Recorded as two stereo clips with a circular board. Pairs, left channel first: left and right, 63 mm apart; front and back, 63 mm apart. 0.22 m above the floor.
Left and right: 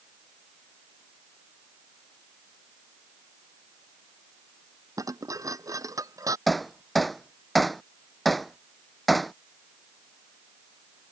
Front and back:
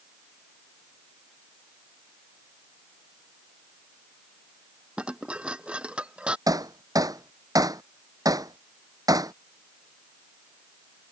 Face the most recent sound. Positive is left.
turn(degrees=180)